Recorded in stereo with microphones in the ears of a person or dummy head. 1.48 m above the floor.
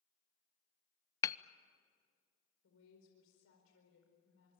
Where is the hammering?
15° left (ahead or behind), 0.6 m.